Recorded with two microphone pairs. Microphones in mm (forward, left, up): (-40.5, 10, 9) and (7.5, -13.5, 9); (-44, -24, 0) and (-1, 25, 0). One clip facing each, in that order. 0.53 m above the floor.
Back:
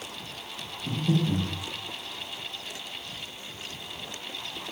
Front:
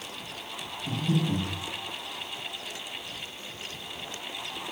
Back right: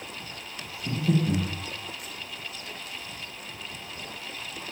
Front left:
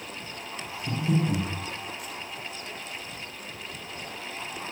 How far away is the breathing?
About 0.6 m.